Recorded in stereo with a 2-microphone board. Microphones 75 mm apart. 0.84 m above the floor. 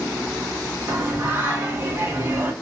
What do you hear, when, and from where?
0.9 s singing: 30° right (ahead or behind), 1.0 m